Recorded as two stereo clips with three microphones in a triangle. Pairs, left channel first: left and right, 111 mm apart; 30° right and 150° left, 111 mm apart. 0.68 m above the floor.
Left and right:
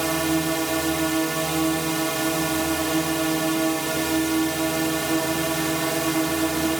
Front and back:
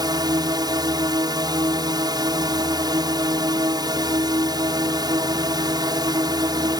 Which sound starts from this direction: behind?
A drone, at 0.0 s.